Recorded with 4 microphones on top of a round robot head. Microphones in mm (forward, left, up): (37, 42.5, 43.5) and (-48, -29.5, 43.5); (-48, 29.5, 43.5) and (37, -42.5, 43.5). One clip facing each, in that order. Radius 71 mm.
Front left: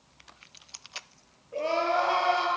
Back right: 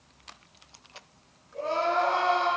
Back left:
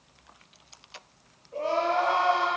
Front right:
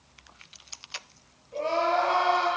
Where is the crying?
55° left, 8 m.